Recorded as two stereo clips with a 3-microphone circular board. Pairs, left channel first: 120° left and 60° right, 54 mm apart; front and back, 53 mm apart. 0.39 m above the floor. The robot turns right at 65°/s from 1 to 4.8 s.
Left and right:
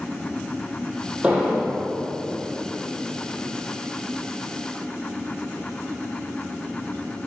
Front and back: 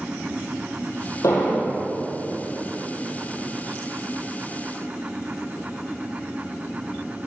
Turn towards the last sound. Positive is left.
turn(degrees=-120)